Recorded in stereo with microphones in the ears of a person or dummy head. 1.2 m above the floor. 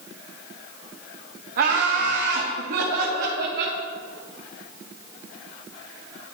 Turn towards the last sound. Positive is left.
turn(degrees=-55)  # may be behind; listen again after turning